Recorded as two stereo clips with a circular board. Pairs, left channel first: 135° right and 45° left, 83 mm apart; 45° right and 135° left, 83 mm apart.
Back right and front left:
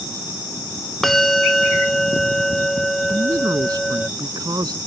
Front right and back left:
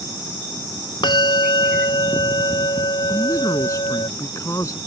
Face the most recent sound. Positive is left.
turn(degrees=5)